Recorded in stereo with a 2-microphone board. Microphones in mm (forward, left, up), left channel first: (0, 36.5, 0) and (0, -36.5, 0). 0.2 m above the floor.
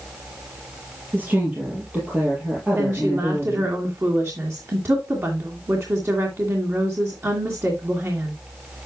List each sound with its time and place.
1.1 s a woman speaking: 25° right (ahead or behind), 4.5 m
2.8 s a woman speaking: 40° right (ahead or behind), 2.5 m